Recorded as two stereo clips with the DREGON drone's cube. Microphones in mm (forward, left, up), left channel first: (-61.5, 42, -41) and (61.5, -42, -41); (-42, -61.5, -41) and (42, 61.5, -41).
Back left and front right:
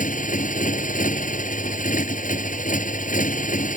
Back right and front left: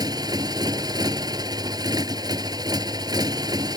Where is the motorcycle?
120° left.